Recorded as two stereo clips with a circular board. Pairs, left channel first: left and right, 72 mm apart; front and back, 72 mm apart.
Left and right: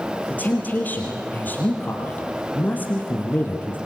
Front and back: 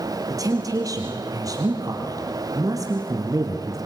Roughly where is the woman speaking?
Behind left.